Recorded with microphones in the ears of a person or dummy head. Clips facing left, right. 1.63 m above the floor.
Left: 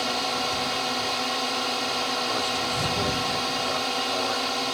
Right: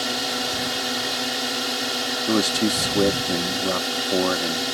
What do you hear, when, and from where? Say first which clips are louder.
0.0 s a drone: right 1 dB; 20° right (ahead or behind)
2.3 s a man speaking: right 8 dB; 80° right